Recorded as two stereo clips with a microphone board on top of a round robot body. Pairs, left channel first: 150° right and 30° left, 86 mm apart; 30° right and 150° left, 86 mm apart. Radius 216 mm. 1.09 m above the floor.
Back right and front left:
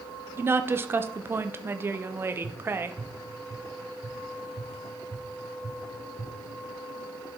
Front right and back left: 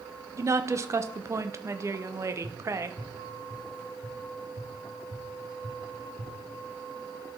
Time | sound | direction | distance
0.4 | a woman speaking | 95° left | 0.8 m
2.4 | tapping | 140° left | 2.5 m